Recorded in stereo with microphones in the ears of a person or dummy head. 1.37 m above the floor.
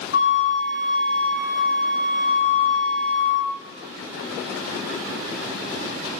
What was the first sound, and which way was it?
A flute, 70° left (ahead or behind).